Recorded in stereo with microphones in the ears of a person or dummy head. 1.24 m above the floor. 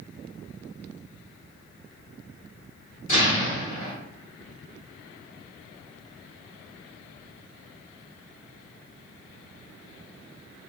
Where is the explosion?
50° left (ahead or behind), 1.8 m.